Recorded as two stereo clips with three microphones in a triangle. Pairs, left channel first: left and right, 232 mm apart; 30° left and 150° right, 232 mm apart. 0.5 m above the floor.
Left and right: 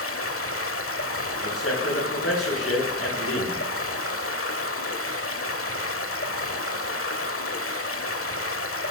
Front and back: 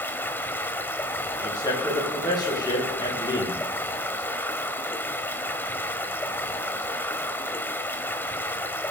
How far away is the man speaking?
About 8 m.